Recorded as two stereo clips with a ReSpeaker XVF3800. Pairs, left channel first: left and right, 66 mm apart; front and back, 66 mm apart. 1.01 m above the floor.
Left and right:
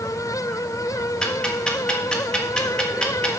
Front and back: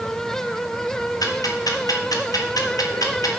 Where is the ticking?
15° left, 1.5 m.